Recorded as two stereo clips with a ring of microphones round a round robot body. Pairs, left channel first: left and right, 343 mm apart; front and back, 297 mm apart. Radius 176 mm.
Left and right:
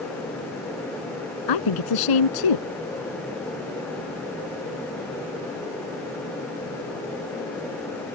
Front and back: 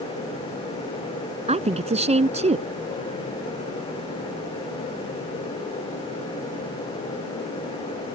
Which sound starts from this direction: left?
A woman speaking, at 1.5 s.